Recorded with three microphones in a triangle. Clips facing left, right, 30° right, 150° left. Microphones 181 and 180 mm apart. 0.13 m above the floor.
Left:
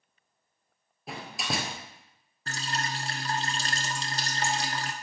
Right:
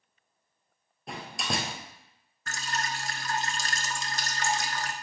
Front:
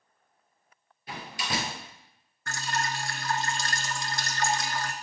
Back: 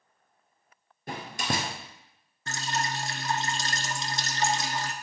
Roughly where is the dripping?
Left.